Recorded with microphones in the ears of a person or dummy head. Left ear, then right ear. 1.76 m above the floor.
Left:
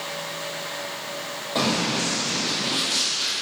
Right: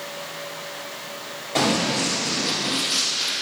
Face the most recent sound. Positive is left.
turn(degrees=10)  # may be behind; listen again after turning